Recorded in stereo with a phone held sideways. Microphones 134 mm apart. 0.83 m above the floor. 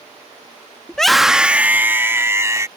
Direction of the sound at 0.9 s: 5° left (ahead or behind).